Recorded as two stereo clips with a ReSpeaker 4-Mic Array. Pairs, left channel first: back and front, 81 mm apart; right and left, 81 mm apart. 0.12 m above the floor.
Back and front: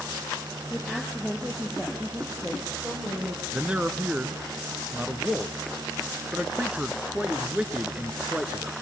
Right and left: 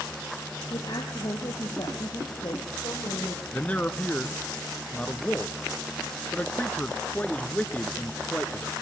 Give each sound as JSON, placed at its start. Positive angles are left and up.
{"t": 0.7, "sound": "a woman speaking", "azimuth_deg": -85, "distance_m": 3.5}
{"t": 3.5, "sound": "a man speaking", "azimuth_deg": -50, "distance_m": 1.1}